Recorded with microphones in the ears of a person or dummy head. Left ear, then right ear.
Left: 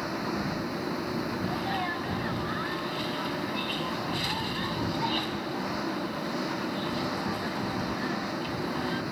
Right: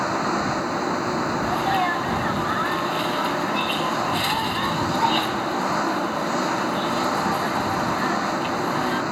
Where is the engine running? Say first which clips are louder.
Right 9 dB; 35° right (ahead or behind).